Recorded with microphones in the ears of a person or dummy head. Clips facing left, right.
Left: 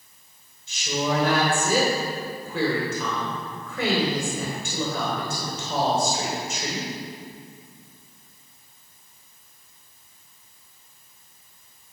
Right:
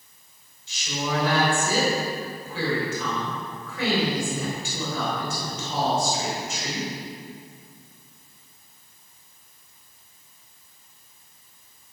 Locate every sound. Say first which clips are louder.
0.7 s a woman speaking: left 4 dB; 50° left (ahead or behind), 4.5 m